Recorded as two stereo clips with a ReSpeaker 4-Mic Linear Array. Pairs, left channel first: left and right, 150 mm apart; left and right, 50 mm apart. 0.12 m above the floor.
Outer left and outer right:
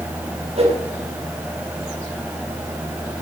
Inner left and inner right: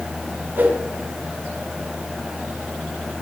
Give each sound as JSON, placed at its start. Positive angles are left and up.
{"t": 0.6, "sound": "a whoosh", "side_deg": -45, "distance_m": 4.0}